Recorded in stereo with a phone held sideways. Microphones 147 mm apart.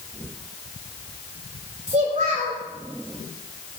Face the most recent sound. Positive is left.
turn(degrees=-50)  # may be behind; listen again after turning